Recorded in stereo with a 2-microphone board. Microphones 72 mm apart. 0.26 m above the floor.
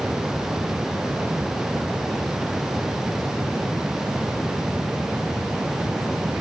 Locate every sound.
Only background noise.